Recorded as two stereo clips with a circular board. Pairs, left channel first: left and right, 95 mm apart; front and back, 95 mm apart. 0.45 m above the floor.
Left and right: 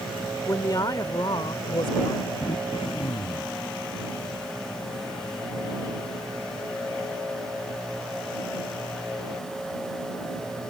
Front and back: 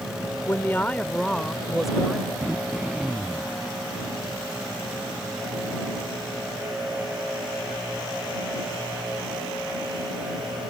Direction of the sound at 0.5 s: 50° left.